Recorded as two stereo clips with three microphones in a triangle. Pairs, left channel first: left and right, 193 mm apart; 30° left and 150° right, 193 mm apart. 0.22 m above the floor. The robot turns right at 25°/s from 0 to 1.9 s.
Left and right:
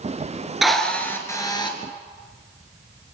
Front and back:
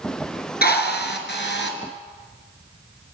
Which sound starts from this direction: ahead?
A drill, at 0.6 s.